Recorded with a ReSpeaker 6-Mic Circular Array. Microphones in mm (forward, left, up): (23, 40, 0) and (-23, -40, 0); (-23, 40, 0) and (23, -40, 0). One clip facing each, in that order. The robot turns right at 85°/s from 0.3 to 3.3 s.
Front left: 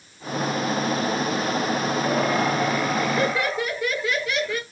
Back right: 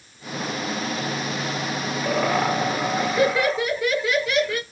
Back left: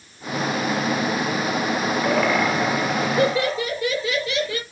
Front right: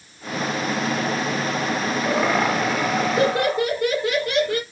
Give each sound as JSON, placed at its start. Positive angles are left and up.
{"t": 2.0, "sound": "laughter", "azimuth_deg": -140, "distance_m": 3.0}